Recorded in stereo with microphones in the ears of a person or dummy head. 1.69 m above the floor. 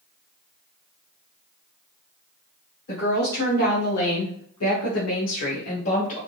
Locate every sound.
2.9 s a woman speaking: 50° left (ahead or behind), 1.6 m; by 6.2 s 40° left (ahead or behind), 1.2 m